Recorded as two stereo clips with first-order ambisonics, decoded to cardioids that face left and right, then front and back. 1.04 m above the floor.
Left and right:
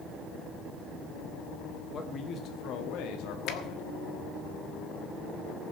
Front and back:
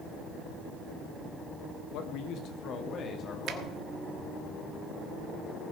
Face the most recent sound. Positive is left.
turn(degrees=135)